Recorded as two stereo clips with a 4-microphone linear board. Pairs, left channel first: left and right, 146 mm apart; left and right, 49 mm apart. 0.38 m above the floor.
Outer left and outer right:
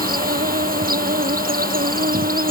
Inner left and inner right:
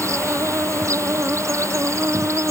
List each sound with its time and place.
0.0 s an insect: 90° right